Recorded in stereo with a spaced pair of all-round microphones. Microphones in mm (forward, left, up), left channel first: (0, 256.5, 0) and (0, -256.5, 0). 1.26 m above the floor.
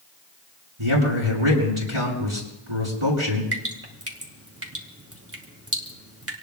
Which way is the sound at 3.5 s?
25° right (ahead or behind).